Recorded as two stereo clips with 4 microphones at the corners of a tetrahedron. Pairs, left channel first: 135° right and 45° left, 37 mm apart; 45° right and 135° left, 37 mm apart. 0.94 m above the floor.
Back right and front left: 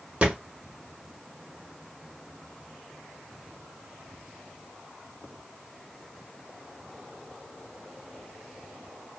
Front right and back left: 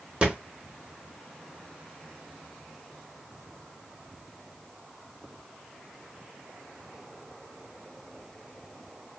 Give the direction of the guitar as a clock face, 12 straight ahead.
I don't hear a guitar.